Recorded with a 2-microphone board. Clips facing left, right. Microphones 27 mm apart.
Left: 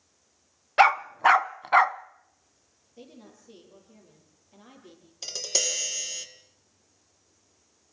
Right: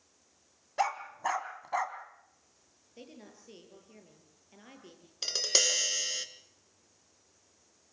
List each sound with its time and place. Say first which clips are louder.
0.8 s a dog barking: left 12 dB; 75° left (ahead or behind), 0.6 m
3.0 s a woman speaking: left 2 dB; 35° right (ahead or behind), 8 m
5.2 s tapping: right 1 dB; 25° right (ahead or behind), 2.0 m